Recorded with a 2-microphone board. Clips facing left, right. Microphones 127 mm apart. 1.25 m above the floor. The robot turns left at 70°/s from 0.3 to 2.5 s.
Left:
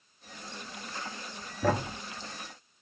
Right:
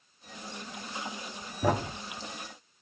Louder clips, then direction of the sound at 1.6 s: Even; 10° right (ahead or behind).